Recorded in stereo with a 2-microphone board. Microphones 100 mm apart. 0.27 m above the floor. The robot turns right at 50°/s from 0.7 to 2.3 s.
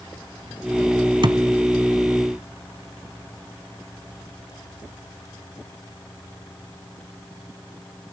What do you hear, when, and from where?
1.2 s a thud: 55° right (ahead or behind), 0.9 m; by 1.4 s 45° right (ahead or behind), 0.9 m